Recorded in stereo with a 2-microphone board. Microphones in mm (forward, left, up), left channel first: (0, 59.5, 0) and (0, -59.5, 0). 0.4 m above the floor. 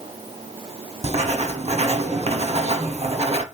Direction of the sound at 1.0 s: 60° right (ahead or behind).